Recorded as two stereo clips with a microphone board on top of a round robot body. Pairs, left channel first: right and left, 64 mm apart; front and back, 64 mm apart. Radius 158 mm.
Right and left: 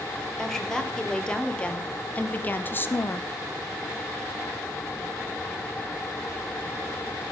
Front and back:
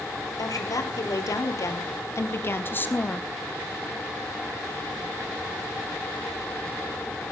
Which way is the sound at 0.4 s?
10° right.